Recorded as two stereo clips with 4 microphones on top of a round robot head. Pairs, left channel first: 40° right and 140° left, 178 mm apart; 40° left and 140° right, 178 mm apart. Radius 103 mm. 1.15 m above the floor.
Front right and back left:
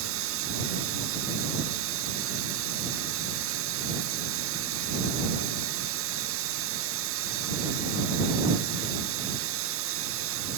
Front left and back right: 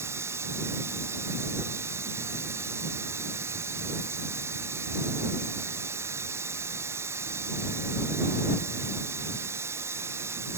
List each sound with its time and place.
0.0 s running water: 145° left